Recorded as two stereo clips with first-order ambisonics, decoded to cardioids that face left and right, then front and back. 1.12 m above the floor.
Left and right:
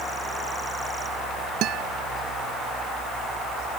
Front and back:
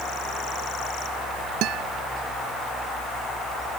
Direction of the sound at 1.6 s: 135° right.